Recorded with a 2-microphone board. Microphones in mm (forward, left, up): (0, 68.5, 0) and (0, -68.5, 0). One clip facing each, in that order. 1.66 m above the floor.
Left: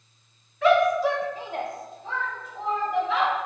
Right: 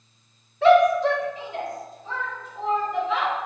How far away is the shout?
About 0.7 m.